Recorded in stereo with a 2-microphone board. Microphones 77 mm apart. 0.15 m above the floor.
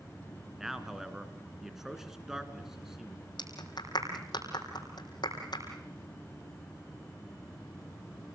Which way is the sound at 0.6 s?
5° right (ahead or behind).